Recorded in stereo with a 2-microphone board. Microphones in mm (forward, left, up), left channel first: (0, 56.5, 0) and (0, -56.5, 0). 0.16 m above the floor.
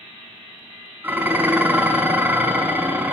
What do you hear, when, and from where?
1.0 s dishes clattering: 15° right (ahead or behind), 0.8 m